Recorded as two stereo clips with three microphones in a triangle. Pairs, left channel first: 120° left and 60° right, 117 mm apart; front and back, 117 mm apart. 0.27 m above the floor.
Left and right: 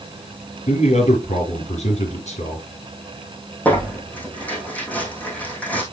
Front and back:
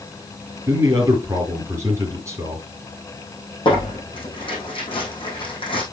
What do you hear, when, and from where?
0.7 s a man speaking: 115° left, 5 m
3.6 s tearing paper: 40° left, 5 m